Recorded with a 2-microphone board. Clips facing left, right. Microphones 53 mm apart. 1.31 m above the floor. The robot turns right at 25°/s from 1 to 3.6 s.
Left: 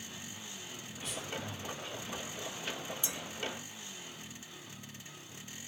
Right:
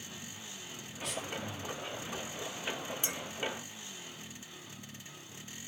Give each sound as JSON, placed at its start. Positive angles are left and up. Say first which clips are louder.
{"t": 1.0, "sound": "breathing", "louder": "right 2 dB", "side_deg": -85, "distance_m": 3.0}
{"t": 3.0, "sound": "a clink", "louder": "right 2 dB", "side_deg": -45, "distance_m": 1.1}